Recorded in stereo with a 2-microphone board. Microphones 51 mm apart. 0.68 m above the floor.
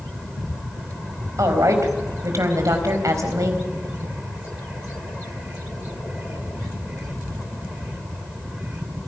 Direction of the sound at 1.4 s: 75° right (ahead or behind).